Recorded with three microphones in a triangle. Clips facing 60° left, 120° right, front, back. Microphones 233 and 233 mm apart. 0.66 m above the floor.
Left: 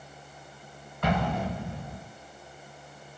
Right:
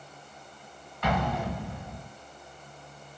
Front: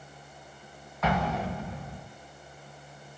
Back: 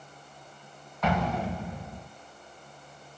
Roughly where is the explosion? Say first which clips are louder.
Left 1 dB, back 1 dB; left.